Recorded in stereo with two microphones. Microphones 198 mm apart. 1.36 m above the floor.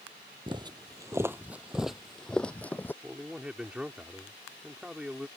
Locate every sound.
0.5 s footsteps: 25° right (ahead or behind); by 2.9 s 10° left (ahead or behind)
3.0 s a man speaking: 5° right (ahead or behind)